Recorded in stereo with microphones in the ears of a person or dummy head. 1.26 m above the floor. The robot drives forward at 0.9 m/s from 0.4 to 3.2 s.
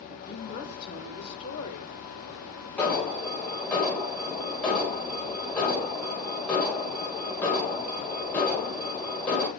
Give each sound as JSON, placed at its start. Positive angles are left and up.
{"t": 0.2, "sound": "a woman speaking", "side_deg": 30, "distance_m": 4.0}
{"t": 2.8, "sound": "an alarm", "side_deg": 10, "distance_m": 3.0}